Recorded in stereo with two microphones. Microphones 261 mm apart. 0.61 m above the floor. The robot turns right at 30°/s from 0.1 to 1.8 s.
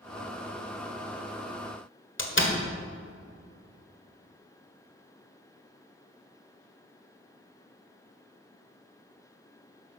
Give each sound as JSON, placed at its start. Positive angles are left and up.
{"t": 2.2, "sound": "a door slam", "side_deg": 50, "distance_m": 1.7}